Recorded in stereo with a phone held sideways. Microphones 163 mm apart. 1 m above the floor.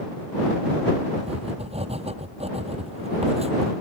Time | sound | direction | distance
1.2 | writing | 40° right (ahead or behind) | ?